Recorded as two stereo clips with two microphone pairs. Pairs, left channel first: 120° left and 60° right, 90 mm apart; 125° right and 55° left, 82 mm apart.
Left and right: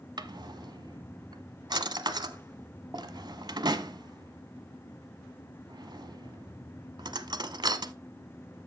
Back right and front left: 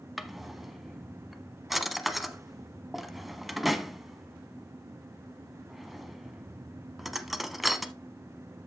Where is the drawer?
35° right, 0.8 m.